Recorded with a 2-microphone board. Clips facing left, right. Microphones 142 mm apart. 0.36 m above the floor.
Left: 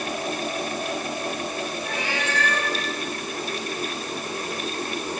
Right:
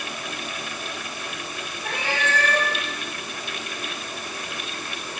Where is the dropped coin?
No dropped coin in this recording.